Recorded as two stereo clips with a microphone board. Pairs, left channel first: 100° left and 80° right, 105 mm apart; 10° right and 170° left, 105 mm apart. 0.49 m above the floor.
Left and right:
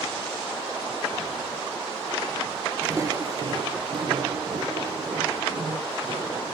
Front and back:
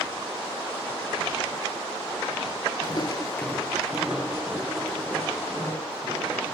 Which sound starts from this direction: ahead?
Footsteps, at 2.8 s.